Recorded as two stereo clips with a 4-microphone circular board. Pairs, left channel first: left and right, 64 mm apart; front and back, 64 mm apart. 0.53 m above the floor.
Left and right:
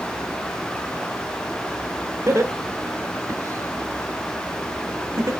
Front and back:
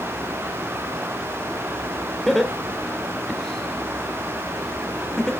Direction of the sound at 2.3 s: 85° right.